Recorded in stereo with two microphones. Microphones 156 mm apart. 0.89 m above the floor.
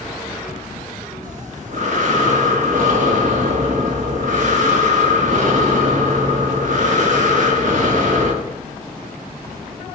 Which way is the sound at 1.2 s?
55° right (ahead or behind).